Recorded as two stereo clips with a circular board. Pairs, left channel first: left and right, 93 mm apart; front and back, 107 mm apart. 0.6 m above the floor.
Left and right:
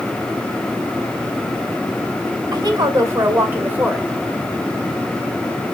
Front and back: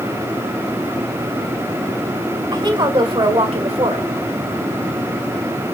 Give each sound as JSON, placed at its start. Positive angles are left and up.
{"t": 2.5, "sound": "a woman speaking", "azimuth_deg": -135, "distance_m": 2.5}